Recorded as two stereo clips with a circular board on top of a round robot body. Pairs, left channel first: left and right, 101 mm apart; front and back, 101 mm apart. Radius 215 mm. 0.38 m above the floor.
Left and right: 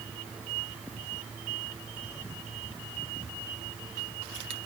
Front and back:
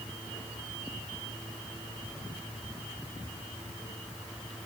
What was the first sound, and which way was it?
Only background noise.